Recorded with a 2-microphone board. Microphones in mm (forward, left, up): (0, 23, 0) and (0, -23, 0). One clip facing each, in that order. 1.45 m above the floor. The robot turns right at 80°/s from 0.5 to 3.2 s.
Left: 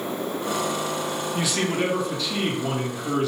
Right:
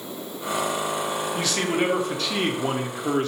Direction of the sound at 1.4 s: 160° left.